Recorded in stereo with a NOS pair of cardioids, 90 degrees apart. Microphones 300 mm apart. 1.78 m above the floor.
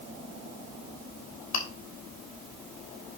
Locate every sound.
1.5 s chewing: 60° left, 3.5 m